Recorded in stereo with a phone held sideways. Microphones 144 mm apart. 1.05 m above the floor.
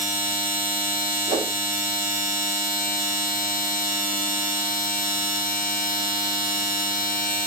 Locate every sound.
0.0 s a machine running: 75° left (ahead or behind), 0.7 m
1.3 s a whoosh: 55° right (ahead or behind), 2.5 m